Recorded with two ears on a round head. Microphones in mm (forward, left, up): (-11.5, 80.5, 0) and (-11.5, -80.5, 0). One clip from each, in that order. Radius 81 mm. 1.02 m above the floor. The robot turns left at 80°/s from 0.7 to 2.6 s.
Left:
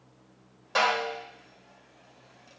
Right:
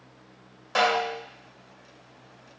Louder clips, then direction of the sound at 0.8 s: Right 2 dB; 170° right.